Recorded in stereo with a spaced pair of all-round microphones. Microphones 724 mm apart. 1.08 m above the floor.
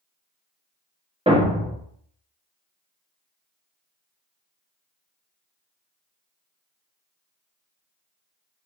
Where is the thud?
10° right (ahead or behind), 0.6 m.